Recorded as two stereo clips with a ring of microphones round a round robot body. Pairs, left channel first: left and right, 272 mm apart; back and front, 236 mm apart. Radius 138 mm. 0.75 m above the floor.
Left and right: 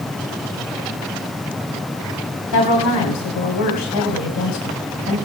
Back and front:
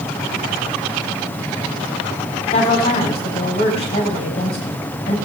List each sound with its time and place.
2.5 s a woman speaking: 115° left, 2.5 m